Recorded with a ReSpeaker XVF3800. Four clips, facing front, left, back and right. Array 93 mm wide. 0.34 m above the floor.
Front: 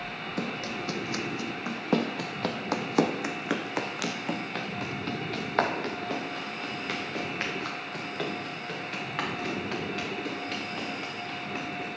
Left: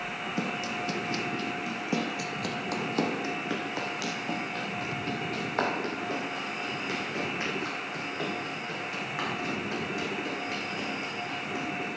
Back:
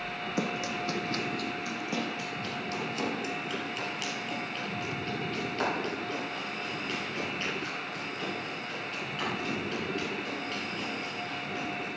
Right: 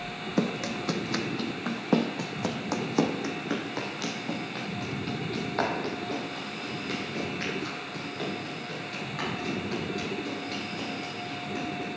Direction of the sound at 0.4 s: 105° right.